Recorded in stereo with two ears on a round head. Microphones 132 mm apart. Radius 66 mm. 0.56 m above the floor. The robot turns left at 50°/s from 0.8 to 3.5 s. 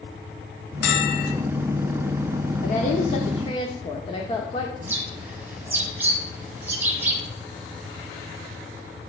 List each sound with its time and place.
0.8 s a bell: 80° left, 1.6 m; by 1.4 s 70° left (ahead or behind), 1.6 m
2.6 s a woman speaking: 85° left, 1.2 m; by 4.7 s 40° left, 1.2 m
4.8 s a bird: 15° right (ahead or behind), 2 m